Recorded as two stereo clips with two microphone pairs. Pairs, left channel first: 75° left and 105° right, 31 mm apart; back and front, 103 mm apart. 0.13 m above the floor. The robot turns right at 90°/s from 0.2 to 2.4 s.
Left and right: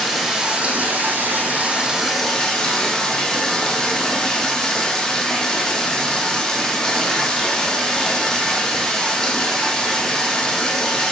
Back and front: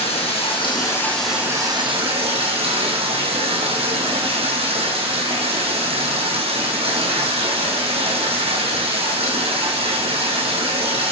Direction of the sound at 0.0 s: 175° left.